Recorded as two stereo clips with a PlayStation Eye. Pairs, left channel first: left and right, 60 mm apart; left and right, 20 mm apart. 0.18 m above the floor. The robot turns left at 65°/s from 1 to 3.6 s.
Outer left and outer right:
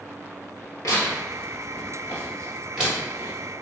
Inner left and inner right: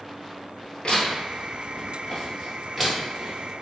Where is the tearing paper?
70° left (ahead or behind), 1.8 m; by 3.3 s 45° right (ahead or behind), 1.8 m.